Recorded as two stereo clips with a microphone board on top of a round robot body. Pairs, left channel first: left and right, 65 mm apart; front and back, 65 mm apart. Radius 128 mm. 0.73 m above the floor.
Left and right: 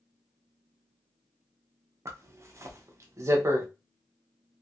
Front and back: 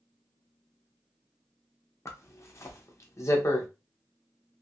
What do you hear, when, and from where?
2.0 s a zipper: 45° right, 0.8 m